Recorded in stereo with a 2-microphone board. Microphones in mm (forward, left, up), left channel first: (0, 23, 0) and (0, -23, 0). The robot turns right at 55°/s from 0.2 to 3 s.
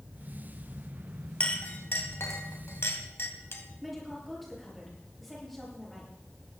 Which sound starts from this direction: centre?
A woman speaking, at 3.8 s.